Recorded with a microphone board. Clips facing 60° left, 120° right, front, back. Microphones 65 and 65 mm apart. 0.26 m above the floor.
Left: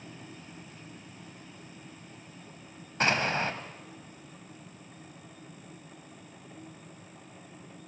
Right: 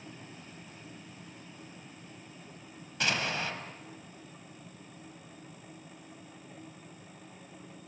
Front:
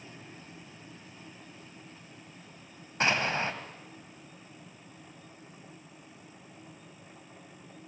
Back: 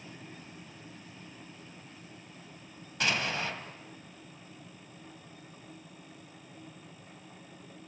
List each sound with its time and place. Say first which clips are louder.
3.0 s an explosion: left 5 dB, front 3 dB; 35° left, 1.7 m